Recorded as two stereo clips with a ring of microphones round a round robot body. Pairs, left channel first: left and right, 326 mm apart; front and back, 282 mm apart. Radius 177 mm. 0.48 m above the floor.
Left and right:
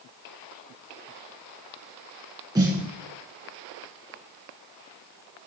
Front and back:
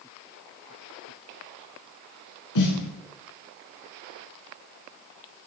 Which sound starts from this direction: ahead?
A snare drum, at 2.5 s.